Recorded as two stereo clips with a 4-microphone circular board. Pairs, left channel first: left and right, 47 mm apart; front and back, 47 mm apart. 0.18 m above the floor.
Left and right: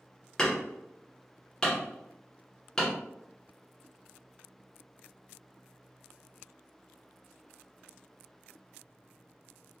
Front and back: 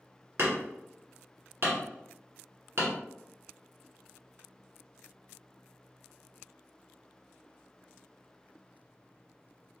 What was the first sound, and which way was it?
Hammering, 160° left.